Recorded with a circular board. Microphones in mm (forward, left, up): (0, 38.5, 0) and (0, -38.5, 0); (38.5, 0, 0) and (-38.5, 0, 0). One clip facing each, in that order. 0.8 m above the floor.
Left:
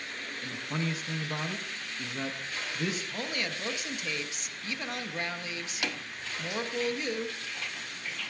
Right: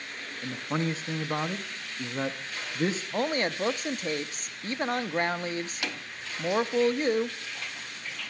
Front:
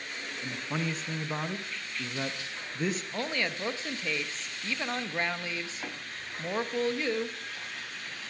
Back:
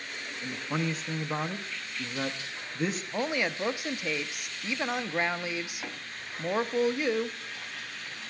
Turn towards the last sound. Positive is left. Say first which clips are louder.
# right 7 dB, back 3 dB
turn(degrees=-110)